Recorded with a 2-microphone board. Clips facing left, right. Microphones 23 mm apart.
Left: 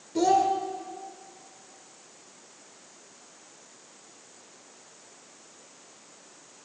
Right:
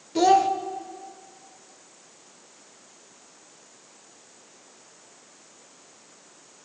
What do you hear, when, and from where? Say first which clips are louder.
0.1 s a child speaking: right 4 dB; 35° right (ahead or behind), 0.5 m